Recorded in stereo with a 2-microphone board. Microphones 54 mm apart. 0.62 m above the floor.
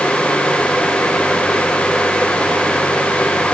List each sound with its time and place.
Only background noise.